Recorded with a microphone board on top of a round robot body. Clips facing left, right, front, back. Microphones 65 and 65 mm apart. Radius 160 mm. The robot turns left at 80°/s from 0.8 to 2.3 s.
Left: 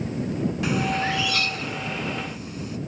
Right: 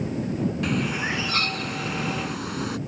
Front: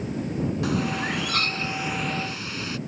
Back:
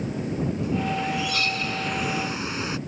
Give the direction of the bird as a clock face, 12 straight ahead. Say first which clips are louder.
Left 2 dB, even; 12 o'clock.